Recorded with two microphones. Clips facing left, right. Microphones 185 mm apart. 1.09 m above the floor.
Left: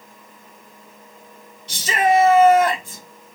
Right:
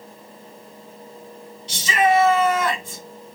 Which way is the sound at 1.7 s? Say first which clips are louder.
Left 1 dB; 60° left (ahead or behind).